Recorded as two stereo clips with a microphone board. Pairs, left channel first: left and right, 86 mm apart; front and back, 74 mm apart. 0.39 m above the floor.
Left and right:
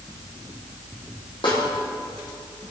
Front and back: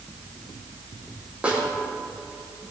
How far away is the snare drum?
About 6 m.